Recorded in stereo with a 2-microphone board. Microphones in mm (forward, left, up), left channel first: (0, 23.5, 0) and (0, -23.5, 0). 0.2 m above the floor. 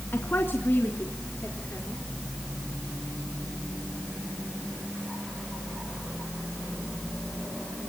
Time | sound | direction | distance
0.1 | a woman speaking | 45° left (ahead or behind) | 2.5 m